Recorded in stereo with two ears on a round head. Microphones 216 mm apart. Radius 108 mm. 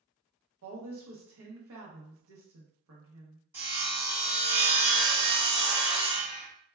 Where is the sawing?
10° right (ahead or behind), 1.5 m.